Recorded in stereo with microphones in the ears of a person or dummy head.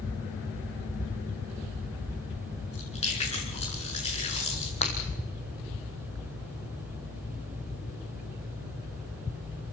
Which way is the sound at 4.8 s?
30° left (ahead or behind).